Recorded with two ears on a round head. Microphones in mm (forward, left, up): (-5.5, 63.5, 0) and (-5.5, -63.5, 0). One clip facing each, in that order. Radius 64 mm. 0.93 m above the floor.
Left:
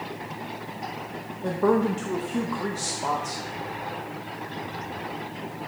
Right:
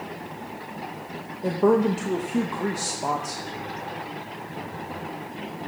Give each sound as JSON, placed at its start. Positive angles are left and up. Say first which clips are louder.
{"t": 1.4, "sound": "a woman speaking", "louder": "right 2 dB", "side_deg": -15, "distance_m": 0.8}